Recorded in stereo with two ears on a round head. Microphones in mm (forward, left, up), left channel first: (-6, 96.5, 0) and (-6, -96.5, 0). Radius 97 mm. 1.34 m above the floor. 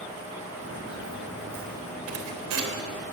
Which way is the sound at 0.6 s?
55° right (ahead or behind).